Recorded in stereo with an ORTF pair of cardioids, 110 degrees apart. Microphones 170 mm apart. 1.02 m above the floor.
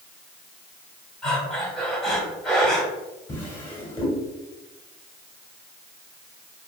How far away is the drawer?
About 1.7 m.